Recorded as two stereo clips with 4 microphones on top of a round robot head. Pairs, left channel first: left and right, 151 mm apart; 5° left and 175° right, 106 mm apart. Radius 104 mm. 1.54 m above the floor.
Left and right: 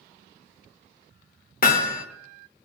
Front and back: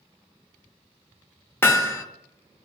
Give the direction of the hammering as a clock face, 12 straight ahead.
10 o'clock.